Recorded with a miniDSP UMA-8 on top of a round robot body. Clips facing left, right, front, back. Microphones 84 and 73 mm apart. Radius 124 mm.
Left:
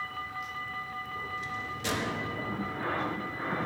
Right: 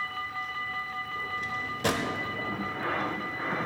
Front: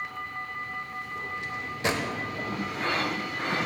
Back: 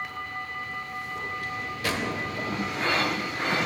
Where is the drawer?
65° right, 1.1 m.